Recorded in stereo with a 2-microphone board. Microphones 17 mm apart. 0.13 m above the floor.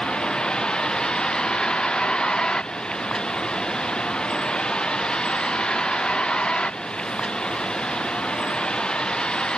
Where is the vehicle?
70° left (ahead or behind); by 9.6 s 80° left.